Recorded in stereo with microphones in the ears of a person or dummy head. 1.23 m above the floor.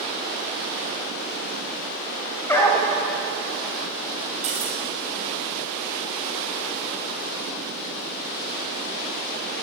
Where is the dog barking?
10° left (ahead or behind), 2 m.